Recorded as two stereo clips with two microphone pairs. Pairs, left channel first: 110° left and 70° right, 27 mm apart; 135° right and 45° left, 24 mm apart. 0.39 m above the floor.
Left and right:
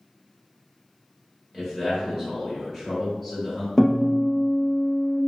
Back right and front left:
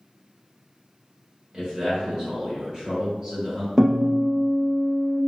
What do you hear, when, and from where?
1.5 s a man speaking: 35° left, 1.7 m
3.8 s a guitar: 50° left, 1.1 m